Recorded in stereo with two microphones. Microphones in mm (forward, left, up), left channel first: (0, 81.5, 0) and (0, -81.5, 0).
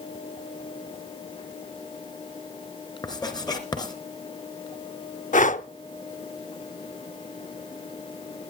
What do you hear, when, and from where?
3.0 s writing: 25° left (ahead or behind), 2.5 m
5.3 s breathing: 50° left (ahead or behind), 0.6 m